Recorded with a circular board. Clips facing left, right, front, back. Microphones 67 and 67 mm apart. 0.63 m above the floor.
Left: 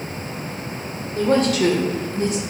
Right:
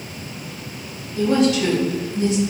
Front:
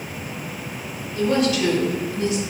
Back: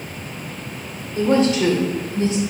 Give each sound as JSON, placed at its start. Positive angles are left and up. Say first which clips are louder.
{"t": 1.1, "sound": "a woman speaking", "louder": "even, back 3 dB", "azimuth_deg": 125, "distance_m": 2.0}